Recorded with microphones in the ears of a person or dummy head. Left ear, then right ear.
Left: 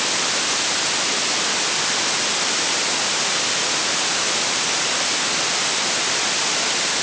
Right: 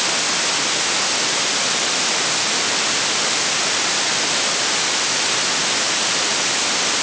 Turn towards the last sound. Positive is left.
No sound to turn to.